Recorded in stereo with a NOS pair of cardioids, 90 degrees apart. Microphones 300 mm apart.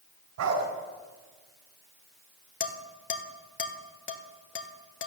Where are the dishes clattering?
40° left, 1.9 m.